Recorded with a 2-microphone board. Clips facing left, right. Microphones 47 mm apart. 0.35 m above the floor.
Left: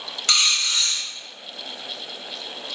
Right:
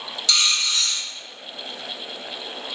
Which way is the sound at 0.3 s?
50° left (ahead or behind).